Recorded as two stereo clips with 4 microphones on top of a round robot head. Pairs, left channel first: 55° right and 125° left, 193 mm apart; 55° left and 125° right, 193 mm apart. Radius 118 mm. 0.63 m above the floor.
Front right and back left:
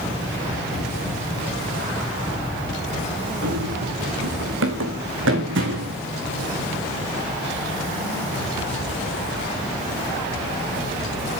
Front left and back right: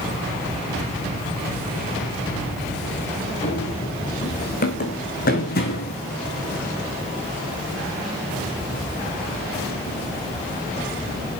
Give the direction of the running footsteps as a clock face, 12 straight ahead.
8 o'clock.